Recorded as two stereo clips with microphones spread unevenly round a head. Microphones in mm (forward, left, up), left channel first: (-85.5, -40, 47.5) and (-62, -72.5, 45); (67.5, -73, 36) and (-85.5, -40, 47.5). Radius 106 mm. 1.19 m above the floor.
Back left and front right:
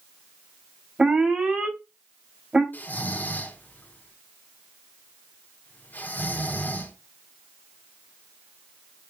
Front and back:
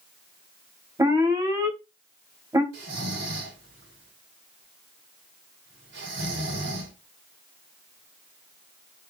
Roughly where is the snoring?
Behind.